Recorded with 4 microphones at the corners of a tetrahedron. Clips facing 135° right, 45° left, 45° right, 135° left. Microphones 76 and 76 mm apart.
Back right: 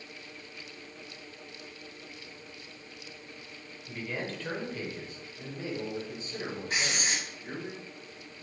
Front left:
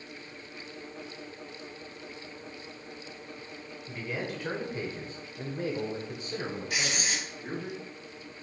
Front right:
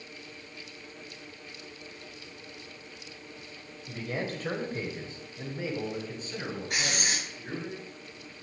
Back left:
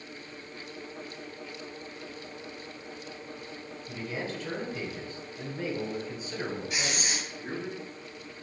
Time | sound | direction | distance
3.9 | a man speaking | 40° right | 1.7 m
6.7 | writing | 80° right | 3.5 m